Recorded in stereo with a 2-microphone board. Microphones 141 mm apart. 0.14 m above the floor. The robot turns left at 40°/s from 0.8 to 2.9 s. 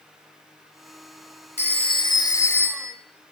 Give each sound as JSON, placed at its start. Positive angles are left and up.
{"t": 1.6, "sound": "a phone ringing", "azimuth_deg": 55, "distance_m": 1.6}